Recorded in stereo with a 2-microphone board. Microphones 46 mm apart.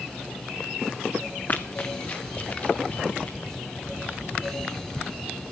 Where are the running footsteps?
40° left (ahead or behind), 1.1 m; by 3.4 s 30° left (ahead or behind), 3 m.